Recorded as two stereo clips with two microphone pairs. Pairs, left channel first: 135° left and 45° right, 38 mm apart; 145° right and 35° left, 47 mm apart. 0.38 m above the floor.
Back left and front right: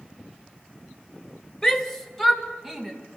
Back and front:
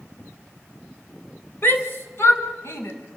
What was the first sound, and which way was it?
A shout, 155° right.